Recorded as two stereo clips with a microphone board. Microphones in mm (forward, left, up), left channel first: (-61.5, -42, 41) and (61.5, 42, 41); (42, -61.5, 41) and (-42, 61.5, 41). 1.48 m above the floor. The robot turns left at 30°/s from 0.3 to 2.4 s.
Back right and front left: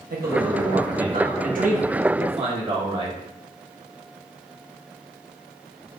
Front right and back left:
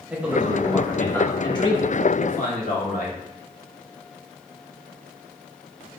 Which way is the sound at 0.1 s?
45° left.